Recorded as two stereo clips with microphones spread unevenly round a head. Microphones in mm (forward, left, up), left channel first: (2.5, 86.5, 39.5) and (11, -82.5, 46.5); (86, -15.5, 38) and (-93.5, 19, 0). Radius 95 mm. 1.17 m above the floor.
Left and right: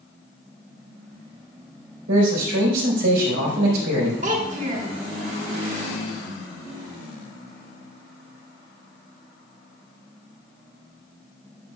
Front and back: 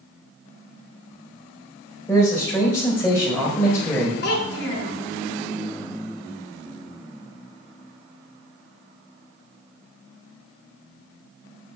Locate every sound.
2.1 s a man speaking: 95° right, 4 m
4.2 s a child speaking: 40° right, 1.8 m